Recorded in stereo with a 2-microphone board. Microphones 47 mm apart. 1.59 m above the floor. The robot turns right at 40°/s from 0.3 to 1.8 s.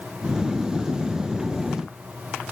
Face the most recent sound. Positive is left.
No sound to turn to.